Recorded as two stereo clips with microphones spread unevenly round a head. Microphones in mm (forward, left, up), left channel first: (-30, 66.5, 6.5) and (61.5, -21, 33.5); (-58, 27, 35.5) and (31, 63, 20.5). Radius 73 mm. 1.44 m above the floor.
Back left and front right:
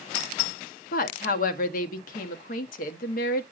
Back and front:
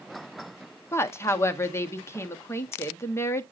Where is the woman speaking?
140° left, 1.0 m.